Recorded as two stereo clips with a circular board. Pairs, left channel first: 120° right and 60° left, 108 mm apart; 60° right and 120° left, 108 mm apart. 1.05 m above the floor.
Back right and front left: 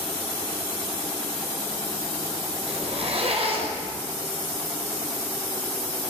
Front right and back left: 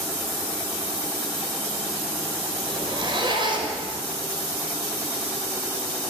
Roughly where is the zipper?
Left.